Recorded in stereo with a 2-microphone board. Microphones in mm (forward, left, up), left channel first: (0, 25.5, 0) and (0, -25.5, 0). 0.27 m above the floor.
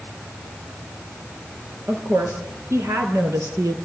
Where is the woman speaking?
55° right (ahead or behind), 6 m; by 3.8 s 70° right (ahead or behind), 7 m.